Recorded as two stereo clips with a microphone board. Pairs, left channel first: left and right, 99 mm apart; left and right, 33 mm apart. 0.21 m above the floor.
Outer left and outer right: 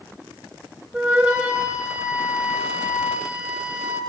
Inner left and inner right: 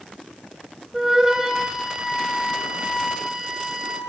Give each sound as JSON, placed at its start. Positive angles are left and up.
{"t": 0.9, "sound": "a flute", "side_deg": -20, "distance_m": 6.0}